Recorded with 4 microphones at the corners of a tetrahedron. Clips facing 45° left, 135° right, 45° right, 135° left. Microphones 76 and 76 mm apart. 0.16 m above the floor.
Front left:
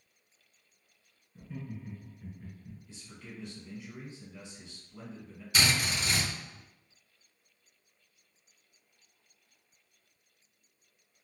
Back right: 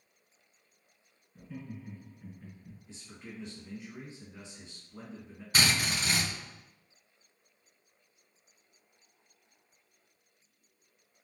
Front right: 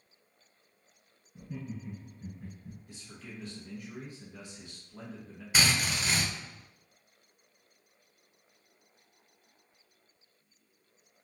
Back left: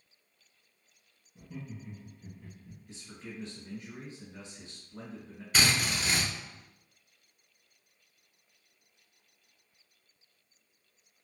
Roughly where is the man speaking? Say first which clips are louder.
Back right 3 dB, back left 5 dB; behind.